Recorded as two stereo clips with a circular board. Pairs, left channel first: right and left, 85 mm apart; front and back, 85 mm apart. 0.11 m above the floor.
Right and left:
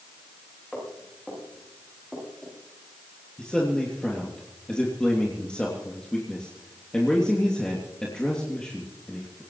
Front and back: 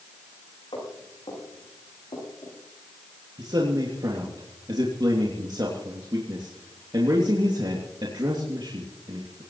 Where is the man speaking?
170° right, 3 m.